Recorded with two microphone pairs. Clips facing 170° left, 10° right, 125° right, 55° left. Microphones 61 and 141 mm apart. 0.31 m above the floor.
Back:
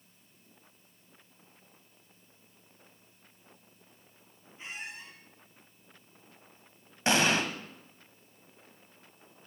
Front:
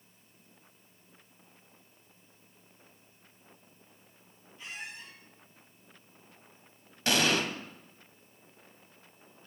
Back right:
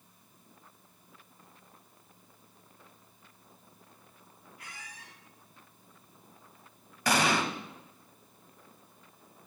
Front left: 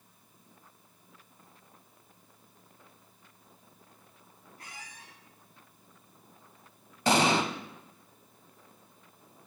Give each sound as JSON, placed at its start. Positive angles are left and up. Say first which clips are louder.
{"t": 4.6, "sound": "a squeak", "louder": "back 1 dB, front left 1 dB", "azimuth_deg": 110, "distance_m": 5.5}
{"t": 7.1, "sound": "an explosion", "louder": "back 1 dB, front left 3 dB", "azimuth_deg": 110, "distance_m": 1.1}